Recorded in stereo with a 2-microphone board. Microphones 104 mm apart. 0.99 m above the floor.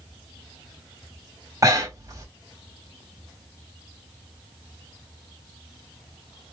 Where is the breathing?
35° right (ahead or behind), 1.0 m.